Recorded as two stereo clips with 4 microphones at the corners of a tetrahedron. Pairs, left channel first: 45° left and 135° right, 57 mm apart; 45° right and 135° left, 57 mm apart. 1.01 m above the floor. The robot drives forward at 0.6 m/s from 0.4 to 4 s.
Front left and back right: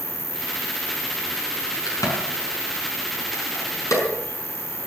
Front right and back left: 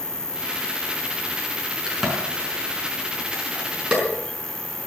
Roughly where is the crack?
Ahead left.